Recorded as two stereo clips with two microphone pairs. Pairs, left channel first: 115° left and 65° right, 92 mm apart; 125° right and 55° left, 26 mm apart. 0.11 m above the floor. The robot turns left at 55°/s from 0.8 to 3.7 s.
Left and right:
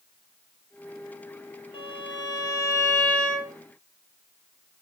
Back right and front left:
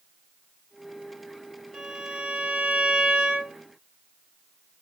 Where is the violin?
125° left, 0.8 m; by 3.5 s 25° left, 0.8 m.